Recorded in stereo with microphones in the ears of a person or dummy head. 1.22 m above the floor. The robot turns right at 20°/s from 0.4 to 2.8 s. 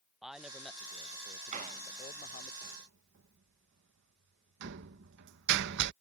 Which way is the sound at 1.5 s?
40° right (ahead or behind).